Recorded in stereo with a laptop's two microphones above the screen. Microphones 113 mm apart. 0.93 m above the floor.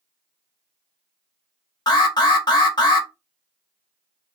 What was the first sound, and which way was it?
An alarm, 40° left (ahead or behind).